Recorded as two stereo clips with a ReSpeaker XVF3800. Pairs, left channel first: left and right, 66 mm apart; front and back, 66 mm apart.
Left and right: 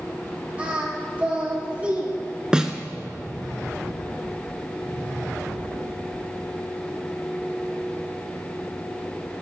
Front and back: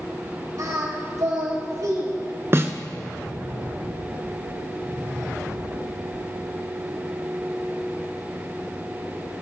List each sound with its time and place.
0.6 s singing: 155° right, 4 m
2.5 s a snare drum: 160° right, 1.1 m